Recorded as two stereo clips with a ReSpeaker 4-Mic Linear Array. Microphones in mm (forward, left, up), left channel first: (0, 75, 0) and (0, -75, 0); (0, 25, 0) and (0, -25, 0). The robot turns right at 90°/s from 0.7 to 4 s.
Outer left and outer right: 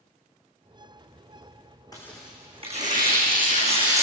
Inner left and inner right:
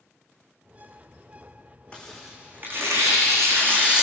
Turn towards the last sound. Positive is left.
turn(degrees=-20)  # may be behind; listen again after turning